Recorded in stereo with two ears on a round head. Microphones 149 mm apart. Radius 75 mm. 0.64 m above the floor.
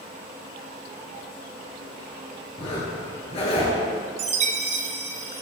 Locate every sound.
2.6 s a zipper: 35° left (ahead or behind), 2 m
4.2 s a chime: 40° right (ahead or behind), 0.7 m